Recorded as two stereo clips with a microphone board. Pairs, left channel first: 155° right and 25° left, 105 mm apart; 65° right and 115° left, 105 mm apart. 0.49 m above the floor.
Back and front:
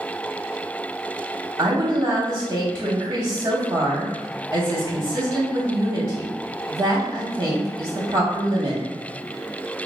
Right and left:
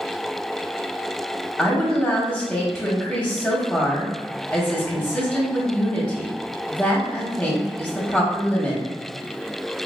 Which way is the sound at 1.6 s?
10° left.